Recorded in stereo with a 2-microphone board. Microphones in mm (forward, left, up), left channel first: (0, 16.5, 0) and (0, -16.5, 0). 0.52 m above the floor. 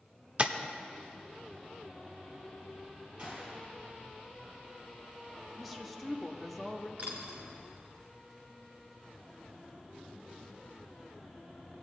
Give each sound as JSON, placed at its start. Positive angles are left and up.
{"t": 0.4, "sound": "tapping", "side_deg": -35, "distance_m": 0.6}
{"t": 3.2, "sound": "a gunshot", "side_deg": -25, "distance_m": 4.0}
{"t": 5.6, "sound": "a woman speaking", "side_deg": 0, "distance_m": 0.9}
{"t": 7.0, "sound": "a dropped coin", "side_deg": -40, "distance_m": 1.9}